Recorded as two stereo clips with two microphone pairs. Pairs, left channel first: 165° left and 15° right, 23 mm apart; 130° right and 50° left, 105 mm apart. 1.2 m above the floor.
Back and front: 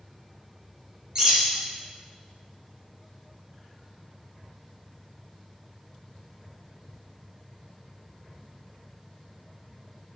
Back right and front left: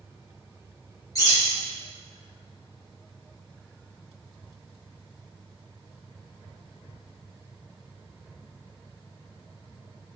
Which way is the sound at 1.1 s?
75° right.